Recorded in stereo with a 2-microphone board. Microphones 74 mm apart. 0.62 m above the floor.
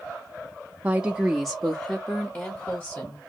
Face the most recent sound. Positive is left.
turn(degrees=35)  # may be behind; listen again after turning